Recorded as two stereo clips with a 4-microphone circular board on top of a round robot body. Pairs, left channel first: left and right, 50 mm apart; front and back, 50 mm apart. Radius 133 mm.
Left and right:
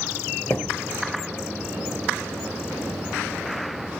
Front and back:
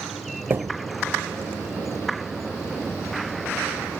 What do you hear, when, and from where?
0.5 s a thud: 135° left, 0.6 m